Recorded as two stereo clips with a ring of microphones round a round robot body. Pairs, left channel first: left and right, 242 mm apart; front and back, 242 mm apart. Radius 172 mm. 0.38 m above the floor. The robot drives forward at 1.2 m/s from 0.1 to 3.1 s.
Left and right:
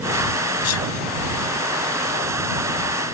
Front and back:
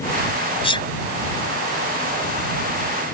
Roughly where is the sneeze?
Ahead left.